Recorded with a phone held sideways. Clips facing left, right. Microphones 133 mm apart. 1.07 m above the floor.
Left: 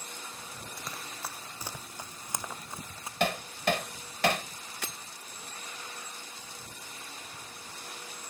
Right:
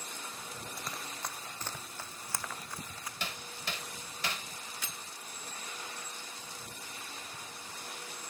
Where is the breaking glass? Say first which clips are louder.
Left 8 dB; 65° left (ahead or behind).